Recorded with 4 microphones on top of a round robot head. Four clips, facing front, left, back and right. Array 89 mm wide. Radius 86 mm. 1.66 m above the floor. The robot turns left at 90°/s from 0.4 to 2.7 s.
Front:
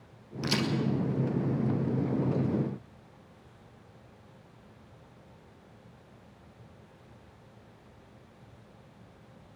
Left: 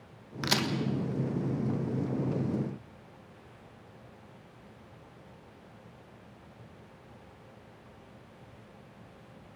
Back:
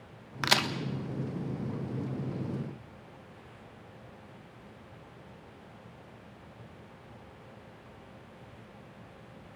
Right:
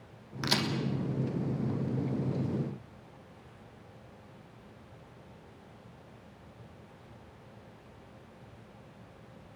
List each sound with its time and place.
0.4 s a crack: 175° right, 1.3 m; by 0.7 s 160° left, 1.3 m